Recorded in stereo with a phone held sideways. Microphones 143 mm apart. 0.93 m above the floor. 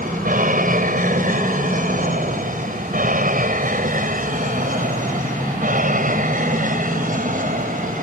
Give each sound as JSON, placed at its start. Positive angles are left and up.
{"t": 0.0, "sound": "an aircraft", "side_deg": -70}